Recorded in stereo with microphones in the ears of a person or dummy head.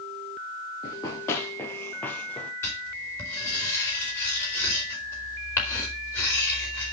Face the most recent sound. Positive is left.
turn(degrees=10)  # may be behind; listen again after turning